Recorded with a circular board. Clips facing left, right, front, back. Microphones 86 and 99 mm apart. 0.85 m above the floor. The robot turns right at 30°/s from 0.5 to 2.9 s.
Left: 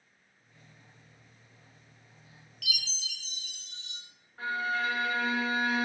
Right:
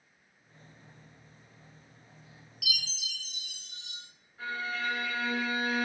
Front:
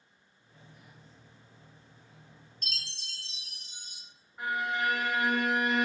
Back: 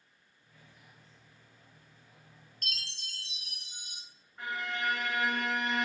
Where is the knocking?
I don't hear knocking.